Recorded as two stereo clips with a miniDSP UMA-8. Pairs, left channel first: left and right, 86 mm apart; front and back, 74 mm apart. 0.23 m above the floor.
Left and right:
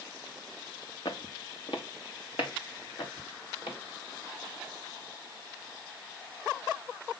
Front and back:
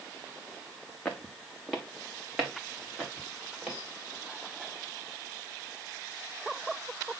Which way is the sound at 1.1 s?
75° left.